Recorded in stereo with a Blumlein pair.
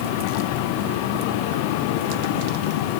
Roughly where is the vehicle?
Ahead left.